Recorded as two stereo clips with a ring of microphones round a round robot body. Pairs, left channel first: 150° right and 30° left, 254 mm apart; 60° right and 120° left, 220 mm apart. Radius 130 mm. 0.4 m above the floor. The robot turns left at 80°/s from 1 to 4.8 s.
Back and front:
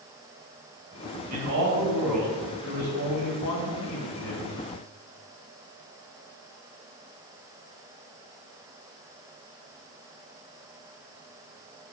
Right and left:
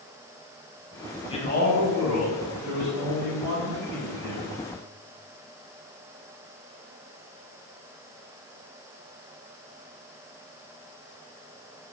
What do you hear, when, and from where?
1.3 s a man speaking: 5° left, 2.5 m; by 4.5 s 110° left, 2.5 m